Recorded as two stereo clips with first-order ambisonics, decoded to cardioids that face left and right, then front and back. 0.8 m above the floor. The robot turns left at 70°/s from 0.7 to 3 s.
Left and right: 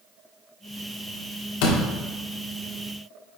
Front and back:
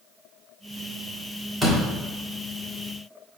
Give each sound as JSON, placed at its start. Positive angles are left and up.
{"t": 1.6, "sound": "a door slam", "azimuth_deg": 95, "distance_m": 1.5}